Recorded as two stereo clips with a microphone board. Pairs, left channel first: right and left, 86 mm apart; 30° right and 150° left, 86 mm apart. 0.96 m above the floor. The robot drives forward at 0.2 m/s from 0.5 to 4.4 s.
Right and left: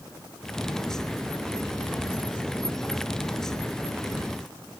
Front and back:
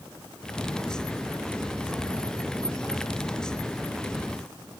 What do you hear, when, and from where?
Only background noise.